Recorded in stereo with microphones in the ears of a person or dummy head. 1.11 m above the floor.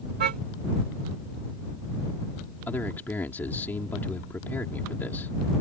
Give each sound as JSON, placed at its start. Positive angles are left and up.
{"t": 0.2, "sound": "a car horn", "side_deg": -50}
{"t": 2.7, "sound": "a man speaking", "side_deg": 5}